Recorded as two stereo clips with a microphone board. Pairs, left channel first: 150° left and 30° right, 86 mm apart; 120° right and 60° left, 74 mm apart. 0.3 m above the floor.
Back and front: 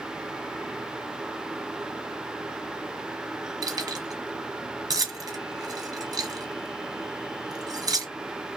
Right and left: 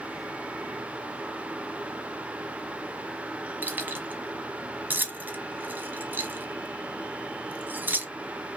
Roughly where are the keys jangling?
Ahead.